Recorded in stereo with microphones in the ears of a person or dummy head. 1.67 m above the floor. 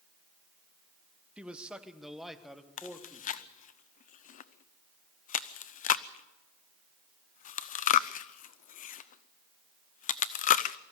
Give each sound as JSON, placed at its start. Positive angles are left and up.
{"t": 1.4, "sound": "a man speaking", "side_deg": -10, "distance_m": 0.9}
{"t": 2.8, "sound": "chewing", "side_deg": 50, "distance_m": 0.6}